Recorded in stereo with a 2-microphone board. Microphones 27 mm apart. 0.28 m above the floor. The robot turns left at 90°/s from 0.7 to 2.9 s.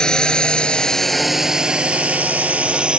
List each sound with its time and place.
0.0 s a drone: 30° left (ahead or behind); by 3.0 s 40° right (ahead or behind)